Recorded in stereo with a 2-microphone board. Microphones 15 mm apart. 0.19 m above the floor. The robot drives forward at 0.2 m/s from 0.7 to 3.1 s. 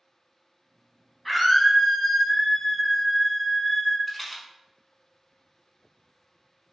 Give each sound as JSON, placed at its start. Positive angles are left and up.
{"t": 1.2, "sound": "a scream", "side_deg": 10, "distance_m": 1.0}
{"t": 4.1, "sound": "a rattle", "side_deg": 10, "distance_m": 0.8}